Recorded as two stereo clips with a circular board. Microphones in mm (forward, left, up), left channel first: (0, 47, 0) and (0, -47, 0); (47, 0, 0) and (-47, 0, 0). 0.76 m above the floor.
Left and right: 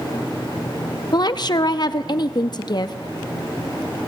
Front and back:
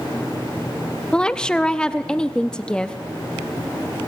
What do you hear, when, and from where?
1.1 s a woman speaking: 80° left, 0.7 m